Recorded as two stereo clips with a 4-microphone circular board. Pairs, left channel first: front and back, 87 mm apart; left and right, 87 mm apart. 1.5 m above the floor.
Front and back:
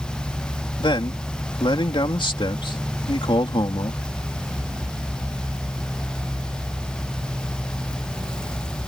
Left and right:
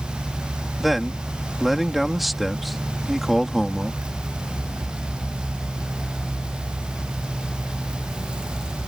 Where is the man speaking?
Straight ahead.